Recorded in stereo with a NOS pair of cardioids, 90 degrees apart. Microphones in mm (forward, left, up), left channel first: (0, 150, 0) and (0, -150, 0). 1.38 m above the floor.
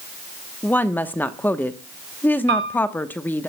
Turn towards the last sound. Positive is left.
turn(degrees=-40)